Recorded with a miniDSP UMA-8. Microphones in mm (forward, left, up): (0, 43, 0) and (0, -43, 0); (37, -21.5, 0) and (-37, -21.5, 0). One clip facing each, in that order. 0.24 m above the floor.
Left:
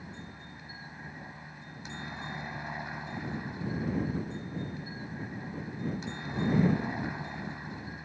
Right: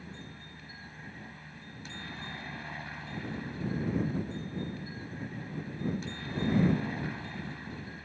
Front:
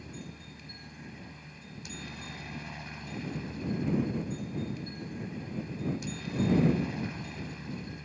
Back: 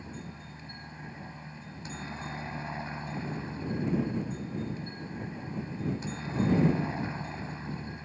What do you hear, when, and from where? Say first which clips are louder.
0.0 s a helicopter: left 1 dB, back 2 dB; 150° left